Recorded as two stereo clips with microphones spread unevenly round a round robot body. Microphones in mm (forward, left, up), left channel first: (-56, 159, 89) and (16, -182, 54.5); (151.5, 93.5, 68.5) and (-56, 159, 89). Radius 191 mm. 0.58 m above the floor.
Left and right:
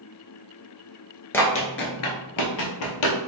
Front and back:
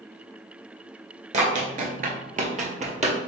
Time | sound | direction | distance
1.3 | running footsteps | 175° left | 0.6 m